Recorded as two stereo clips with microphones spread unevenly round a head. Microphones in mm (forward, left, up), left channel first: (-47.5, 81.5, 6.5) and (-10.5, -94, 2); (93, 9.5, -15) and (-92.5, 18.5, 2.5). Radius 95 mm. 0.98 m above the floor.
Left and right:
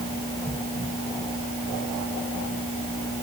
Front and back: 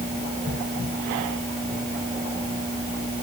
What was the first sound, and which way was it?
Only background noise.